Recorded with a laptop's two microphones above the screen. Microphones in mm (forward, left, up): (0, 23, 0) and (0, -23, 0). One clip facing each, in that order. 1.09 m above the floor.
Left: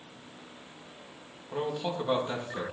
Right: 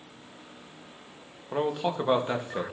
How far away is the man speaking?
About 1.4 m.